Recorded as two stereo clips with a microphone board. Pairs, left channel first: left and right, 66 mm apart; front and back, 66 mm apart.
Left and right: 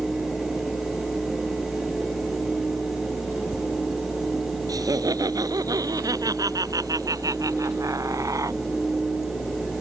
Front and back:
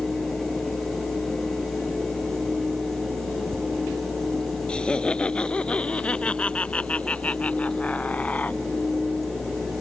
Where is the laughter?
75° right; by 8.6 s 65° right.